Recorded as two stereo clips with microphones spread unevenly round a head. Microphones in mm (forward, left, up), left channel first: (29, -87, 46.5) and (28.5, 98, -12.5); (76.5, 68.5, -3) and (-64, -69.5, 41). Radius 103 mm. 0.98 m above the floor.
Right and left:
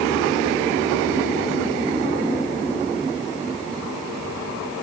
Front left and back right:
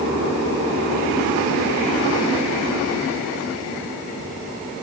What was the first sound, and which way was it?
Only background noise.